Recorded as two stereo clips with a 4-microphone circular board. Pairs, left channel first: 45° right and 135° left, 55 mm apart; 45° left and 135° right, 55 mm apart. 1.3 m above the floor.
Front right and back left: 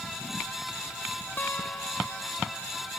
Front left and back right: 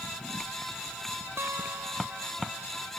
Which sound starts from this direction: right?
A guitar, at 1.4 s.